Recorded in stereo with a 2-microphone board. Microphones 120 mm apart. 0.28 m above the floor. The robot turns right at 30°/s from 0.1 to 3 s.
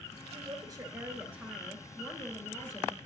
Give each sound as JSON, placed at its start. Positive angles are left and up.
{"t": 0.3, "sound": "a woman speaking", "azimuth_deg": -45, "distance_m": 4.5}